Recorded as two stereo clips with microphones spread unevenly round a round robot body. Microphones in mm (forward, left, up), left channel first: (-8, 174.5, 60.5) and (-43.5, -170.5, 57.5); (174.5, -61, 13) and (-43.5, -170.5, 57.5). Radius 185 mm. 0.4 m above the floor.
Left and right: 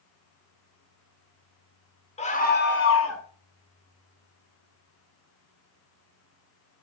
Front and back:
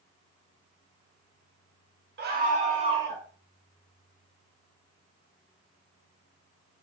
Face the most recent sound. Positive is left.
turn(degrees=120)